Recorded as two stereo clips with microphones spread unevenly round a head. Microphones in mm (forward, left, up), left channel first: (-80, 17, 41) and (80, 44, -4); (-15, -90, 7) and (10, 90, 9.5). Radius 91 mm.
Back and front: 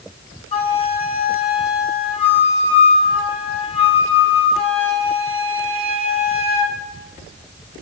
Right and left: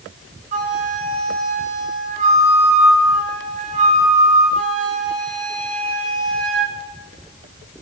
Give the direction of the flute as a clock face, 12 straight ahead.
7 o'clock.